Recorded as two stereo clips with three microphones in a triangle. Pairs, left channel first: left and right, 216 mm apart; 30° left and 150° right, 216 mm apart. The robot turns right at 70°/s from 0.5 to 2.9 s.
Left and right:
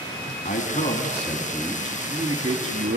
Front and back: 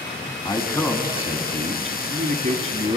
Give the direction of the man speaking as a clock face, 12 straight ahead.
9 o'clock.